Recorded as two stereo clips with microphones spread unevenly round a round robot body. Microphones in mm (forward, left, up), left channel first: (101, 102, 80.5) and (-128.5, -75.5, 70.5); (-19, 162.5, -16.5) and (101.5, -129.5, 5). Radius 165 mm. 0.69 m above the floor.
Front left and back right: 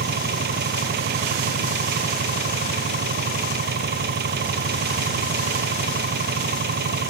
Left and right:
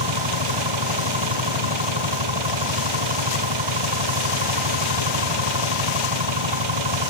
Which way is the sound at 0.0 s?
85° right.